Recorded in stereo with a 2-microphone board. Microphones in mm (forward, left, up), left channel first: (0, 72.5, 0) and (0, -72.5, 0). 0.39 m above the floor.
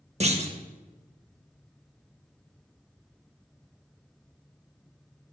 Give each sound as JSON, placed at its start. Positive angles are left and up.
{"t": 0.2, "sound": "a clunk", "side_deg": -45, "distance_m": 0.7}